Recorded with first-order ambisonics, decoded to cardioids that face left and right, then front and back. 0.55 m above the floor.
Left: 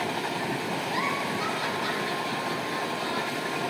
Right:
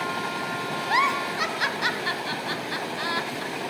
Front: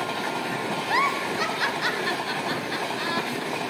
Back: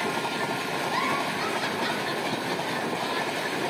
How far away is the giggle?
About 0.7 m.